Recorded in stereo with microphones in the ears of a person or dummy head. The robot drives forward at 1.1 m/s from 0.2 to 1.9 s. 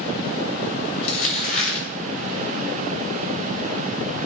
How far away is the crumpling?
About 5.5 m.